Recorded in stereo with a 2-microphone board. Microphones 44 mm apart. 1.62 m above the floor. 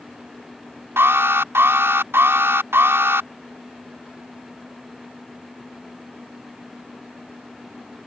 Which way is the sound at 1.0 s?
70° right (ahead or behind).